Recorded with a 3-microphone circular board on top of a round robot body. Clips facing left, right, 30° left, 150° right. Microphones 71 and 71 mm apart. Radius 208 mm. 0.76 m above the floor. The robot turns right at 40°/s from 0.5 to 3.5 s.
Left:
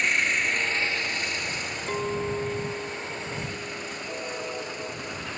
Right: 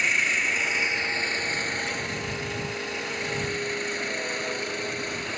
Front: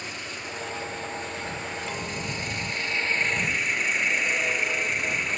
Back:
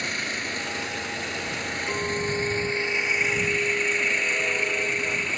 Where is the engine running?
175° right; by 5.4 s 55° right.